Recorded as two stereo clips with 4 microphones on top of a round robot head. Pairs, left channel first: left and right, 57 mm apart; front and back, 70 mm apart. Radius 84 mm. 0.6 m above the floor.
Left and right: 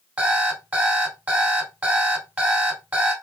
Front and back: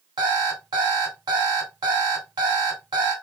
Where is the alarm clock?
150° right, 2.5 m.